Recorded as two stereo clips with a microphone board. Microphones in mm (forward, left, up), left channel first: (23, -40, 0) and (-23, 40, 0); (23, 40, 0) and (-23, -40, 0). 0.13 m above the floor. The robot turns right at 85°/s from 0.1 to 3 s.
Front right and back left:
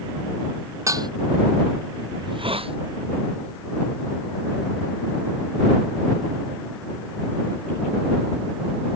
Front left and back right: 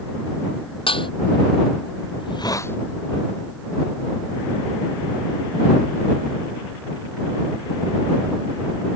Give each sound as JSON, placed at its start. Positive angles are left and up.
{"t": 0.9, "sound": "dishes clattering", "azimuth_deg": 65}
{"t": 2.2, "sound": "a hiss", "azimuth_deg": 80}